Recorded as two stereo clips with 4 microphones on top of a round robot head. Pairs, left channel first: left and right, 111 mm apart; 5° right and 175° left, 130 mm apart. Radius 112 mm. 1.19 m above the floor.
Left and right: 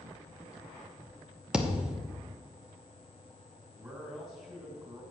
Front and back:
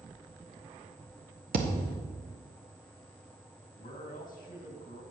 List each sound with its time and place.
1.5 s a thud: 175° right, 1.1 m
3.8 s a man speaking: 25° right, 2.5 m